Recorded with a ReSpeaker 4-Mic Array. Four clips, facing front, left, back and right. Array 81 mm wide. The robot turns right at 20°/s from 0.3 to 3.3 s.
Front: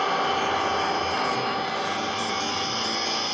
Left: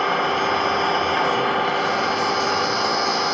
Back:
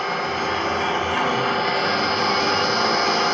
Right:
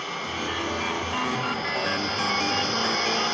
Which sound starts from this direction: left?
An engine running, at 0.0 s.